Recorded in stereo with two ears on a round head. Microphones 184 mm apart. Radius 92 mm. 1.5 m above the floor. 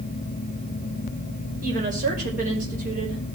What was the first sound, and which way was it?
A woman speaking, 40° right (ahead or behind).